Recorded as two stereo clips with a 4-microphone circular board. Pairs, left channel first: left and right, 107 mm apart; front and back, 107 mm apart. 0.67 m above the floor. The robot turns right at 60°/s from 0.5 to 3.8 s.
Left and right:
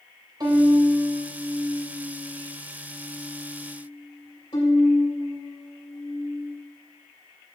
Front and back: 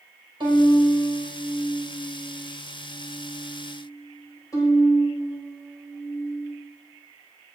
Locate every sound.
0.4 s a violin: 140° right, 3 m; by 6.5 s 55° left, 3 m